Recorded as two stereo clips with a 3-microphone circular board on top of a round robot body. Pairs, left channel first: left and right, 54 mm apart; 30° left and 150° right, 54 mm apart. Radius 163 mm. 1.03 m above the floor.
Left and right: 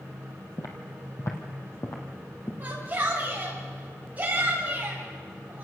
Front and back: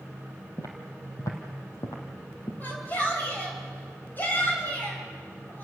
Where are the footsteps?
65° left, 1.9 m; by 2.5 s 45° left, 2.5 m.